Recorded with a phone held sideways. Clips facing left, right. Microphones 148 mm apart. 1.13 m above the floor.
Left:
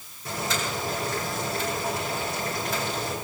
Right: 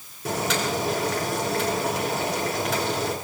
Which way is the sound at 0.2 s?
85° right.